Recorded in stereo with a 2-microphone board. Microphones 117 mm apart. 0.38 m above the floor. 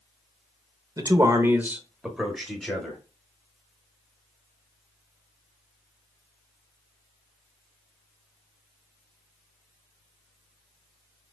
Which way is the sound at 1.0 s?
30° right (ahead or behind).